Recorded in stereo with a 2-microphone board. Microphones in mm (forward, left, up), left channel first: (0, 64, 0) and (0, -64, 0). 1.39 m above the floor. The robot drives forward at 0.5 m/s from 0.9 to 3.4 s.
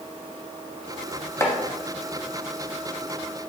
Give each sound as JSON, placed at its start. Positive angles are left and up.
{"t": 1.4, "sound": "chopping", "side_deg": 20, "distance_m": 0.7}